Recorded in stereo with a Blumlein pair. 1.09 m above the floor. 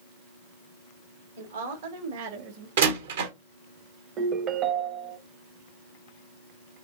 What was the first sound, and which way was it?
A woman speaking, 60° right.